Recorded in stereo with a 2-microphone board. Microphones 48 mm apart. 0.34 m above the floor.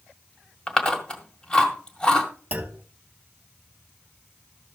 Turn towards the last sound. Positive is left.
turn(degrees=-40)  # may be behind; listen again after turning